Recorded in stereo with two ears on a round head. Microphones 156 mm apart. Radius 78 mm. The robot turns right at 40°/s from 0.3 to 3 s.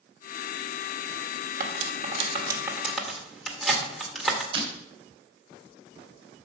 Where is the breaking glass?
30° right (ahead or behind), 2.5 m.